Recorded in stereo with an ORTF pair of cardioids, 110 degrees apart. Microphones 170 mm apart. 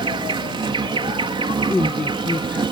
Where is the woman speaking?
10° left.